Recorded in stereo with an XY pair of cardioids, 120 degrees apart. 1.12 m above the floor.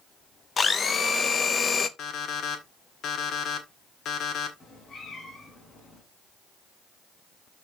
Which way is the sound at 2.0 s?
60° left.